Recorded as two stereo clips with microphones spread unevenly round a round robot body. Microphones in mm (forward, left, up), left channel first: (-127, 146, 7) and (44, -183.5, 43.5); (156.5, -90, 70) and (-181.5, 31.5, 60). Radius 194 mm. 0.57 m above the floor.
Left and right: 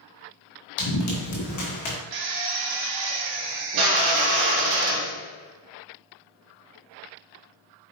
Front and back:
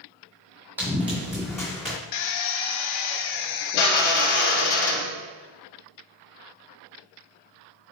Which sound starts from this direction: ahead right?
A drill, at 2.1 s.